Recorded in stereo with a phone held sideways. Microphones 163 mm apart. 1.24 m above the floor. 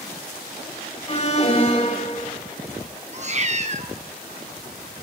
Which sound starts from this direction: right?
A cat meowing, at 3.1 s.